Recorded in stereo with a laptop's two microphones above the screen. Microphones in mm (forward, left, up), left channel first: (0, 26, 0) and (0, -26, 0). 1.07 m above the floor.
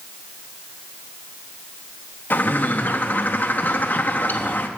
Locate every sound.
2.3 s a bird: 35° left (ahead or behind), 1.0 m